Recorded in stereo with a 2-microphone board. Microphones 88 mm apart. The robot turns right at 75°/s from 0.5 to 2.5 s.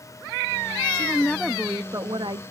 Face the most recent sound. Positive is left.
turn(degrees=-95)